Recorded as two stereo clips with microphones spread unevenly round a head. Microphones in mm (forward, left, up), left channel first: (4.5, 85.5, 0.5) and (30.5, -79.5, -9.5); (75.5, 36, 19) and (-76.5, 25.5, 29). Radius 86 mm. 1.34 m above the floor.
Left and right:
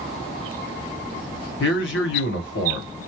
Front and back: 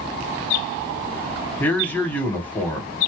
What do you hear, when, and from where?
1.6 s a man speaking: 80° left, 1.2 m